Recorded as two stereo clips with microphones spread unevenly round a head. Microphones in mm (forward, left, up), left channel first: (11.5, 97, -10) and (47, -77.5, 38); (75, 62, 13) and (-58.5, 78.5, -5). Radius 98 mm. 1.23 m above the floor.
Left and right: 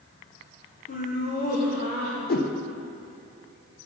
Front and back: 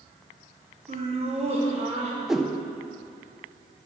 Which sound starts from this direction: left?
A whoosh, at 2.3 s.